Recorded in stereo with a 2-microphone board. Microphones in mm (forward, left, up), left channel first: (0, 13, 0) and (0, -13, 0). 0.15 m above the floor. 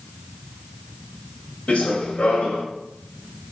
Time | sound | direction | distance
1.7 | running footsteps | 45° left (ahead or behind) | 1.5 m